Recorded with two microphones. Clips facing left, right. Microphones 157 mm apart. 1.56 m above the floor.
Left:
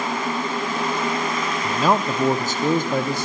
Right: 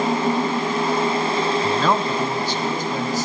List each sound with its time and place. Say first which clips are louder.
1.6 s a man speaking: even; 10° right (ahead or behind), 0.5 m; by 3.3 s 65° left (ahead or behind), 1.3 m